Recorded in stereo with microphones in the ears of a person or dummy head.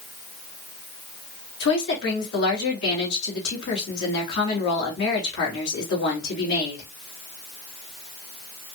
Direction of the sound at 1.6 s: 65° left (ahead or behind).